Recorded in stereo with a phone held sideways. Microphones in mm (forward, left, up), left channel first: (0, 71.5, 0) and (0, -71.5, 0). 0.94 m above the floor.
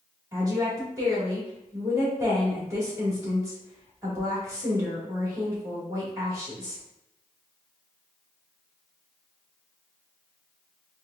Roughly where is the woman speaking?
Right.